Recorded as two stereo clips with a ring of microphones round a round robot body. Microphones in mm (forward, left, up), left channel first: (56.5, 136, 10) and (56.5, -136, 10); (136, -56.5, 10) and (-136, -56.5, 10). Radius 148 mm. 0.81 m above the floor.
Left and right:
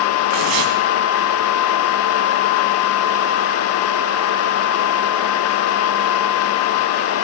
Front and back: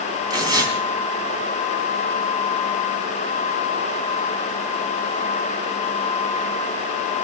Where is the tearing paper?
105° right, 4.5 m.